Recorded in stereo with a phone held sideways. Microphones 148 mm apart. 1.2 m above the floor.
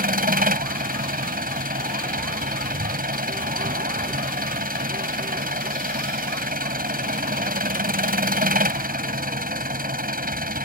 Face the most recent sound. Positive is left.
turn(degrees=-80)